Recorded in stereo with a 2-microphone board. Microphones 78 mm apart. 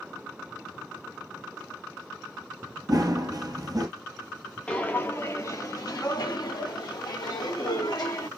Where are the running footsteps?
55° right (ahead or behind), 0.8 m.